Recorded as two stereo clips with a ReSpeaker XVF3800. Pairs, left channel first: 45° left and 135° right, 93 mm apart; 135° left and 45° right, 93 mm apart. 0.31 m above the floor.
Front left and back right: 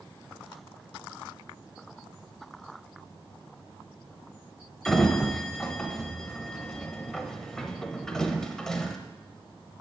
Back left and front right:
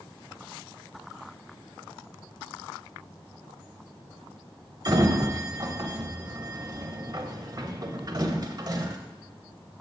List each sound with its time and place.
4.8 s a sliding door: 35° right, 0.6 m